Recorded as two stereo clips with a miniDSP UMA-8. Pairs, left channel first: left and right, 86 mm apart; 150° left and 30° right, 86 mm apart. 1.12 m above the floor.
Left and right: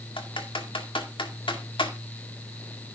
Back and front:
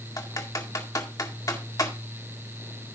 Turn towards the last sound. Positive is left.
turn(degrees=105)